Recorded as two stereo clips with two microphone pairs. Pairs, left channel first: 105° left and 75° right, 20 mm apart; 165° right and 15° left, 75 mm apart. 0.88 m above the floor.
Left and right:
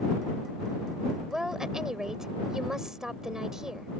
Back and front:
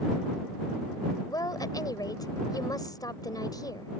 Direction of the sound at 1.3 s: 135° right.